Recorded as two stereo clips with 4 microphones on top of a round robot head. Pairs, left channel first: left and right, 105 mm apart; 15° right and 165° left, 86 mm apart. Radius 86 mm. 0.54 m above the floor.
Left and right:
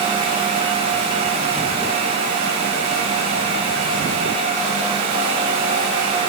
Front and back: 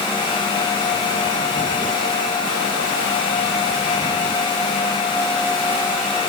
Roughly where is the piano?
No piano in this recording.